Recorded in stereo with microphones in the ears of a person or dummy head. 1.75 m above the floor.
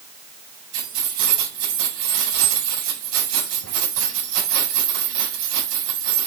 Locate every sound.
0.7 s keys jangling: 80° right, 5.5 m